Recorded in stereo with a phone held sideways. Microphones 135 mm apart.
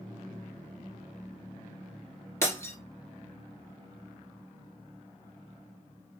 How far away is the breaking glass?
About 1.3 m.